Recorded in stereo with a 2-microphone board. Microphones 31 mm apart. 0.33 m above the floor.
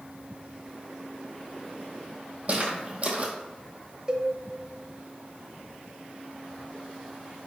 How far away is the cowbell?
About 0.5 m.